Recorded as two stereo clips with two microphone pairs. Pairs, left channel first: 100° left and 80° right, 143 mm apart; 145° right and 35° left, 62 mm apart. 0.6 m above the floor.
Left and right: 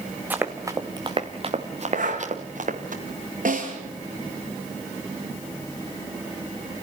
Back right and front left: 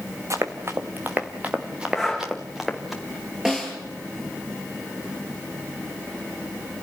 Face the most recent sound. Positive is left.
turn(degrees=-50)